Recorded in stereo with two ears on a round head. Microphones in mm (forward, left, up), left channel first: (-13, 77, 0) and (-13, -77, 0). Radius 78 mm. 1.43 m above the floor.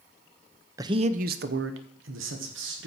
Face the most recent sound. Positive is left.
turn(degrees=-85)